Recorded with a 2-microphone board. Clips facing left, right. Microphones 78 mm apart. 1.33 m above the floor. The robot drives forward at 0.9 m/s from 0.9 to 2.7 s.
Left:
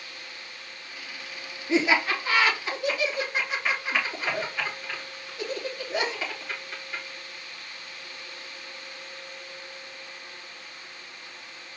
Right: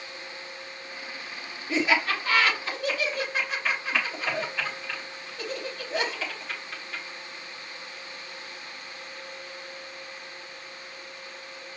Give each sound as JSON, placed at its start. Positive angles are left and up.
{"t": 1.7, "sound": "laughter", "side_deg": 20, "distance_m": 2.0}